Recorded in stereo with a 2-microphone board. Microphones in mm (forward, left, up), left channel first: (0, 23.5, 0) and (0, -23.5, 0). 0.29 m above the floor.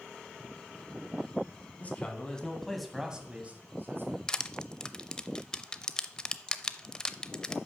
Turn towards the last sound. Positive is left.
turn(degrees=15)  # may be behind; listen again after turning